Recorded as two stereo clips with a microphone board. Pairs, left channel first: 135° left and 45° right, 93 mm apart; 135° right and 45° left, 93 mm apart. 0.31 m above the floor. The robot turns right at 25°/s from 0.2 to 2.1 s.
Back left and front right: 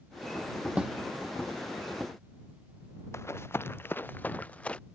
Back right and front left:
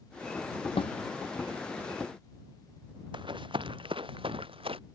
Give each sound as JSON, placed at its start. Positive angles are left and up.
{"t": 0.8, "sound": "a snare drum", "azimuth_deg": -125}
{"t": 3.1, "sound": "running footsteps", "azimuth_deg": 75}